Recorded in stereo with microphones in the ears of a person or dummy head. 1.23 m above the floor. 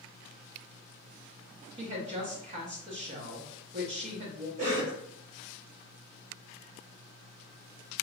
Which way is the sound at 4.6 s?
65° right (ahead or behind).